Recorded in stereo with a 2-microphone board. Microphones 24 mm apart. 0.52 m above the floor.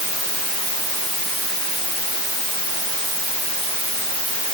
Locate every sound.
Only background noise.